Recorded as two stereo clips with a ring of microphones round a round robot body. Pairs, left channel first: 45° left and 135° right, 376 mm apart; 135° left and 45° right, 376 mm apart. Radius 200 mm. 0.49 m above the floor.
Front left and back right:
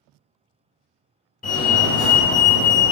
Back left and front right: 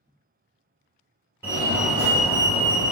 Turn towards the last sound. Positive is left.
turn(degrees=30)